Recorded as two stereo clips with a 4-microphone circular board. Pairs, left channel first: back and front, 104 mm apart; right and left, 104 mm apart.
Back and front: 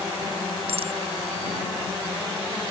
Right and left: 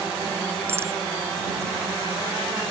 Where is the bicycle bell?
25° left.